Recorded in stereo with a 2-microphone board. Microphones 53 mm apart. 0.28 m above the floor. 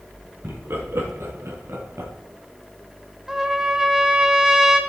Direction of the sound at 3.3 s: 10° right (ahead or behind).